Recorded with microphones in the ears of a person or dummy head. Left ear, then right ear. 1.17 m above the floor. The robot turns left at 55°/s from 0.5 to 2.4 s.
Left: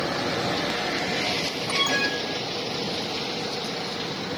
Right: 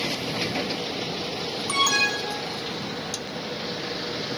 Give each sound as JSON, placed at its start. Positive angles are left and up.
{"t": 1.7, "sound": "an alarm", "side_deg": -5}